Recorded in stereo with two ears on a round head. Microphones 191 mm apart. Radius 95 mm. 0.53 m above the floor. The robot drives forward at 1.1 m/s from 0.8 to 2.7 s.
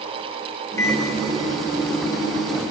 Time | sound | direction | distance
0.8 | a microwave | 10° left (ahead or behind) | 2.5 m